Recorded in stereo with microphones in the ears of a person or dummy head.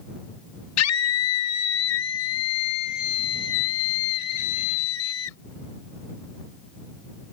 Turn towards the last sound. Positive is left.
turn(degrees=75)  # may be behind; listen again after turning